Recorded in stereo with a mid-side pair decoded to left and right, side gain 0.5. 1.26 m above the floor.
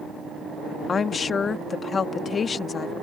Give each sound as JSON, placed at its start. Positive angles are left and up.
{"t": 0.9, "sound": "a woman speaking", "azimuth_deg": 35}